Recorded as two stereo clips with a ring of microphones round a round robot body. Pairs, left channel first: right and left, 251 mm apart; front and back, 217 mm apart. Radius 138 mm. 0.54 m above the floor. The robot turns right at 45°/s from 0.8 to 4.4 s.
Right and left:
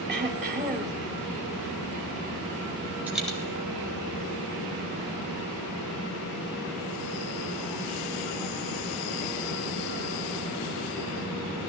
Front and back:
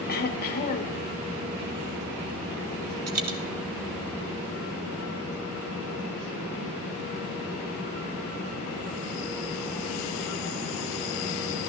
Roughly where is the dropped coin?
Behind.